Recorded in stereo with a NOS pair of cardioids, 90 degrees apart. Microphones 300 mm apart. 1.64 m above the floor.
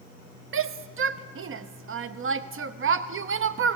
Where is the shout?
45° right, 0.9 m.